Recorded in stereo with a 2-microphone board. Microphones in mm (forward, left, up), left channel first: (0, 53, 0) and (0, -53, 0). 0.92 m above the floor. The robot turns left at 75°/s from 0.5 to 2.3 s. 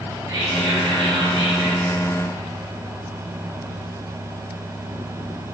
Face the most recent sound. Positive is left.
turn(degrees=-170)